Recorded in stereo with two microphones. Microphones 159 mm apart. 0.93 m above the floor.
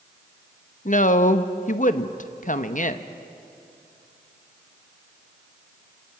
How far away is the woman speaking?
About 0.9 m.